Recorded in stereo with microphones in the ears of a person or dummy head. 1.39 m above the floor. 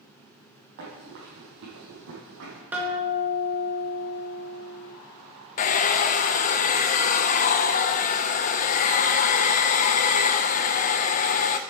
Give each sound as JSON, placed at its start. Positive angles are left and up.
{"t": 0.8, "sound": "running footsteps", "side_deg": -60, "distance_m": 3.5}
{"t": 2.7, "sound": "a guitar", "side_deg": -15, "distance_m": 1.9}
{"t": 5.6, "sound": "a hair dryer", "side_deg": 50, "distance_m": 0.6}